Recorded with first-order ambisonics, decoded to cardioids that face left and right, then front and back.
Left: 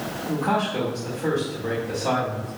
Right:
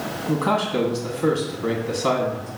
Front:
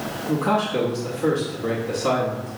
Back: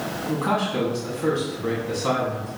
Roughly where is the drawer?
I don't hear a drawer.